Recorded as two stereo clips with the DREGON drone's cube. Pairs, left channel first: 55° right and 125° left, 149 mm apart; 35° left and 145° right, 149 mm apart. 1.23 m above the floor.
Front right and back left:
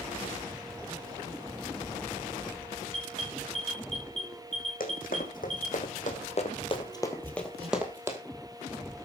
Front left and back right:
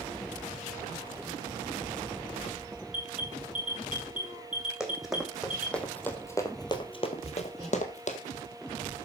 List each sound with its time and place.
2.9 s an alarm: straight behind, 4 m
4.8 s running footsteps: 60° right, 3.5 m; by 8.2 s 55° left, 2 m
7.2 s hammering: 175° left, 7.5 m